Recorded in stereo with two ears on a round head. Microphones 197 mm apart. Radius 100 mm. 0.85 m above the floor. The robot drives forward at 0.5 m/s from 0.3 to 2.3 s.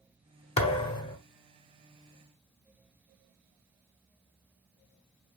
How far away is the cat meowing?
No cat meowing in this recording.